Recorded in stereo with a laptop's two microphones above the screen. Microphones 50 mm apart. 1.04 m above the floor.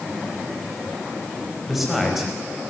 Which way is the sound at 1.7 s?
5° right (ahead or behind).